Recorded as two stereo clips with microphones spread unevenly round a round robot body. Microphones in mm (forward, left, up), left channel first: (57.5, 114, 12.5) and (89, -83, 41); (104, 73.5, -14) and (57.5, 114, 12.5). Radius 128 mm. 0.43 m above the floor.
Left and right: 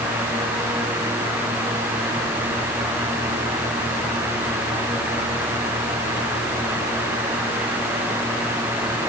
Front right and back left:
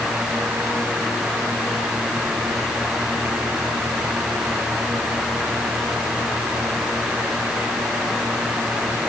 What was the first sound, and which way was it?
Only background noise.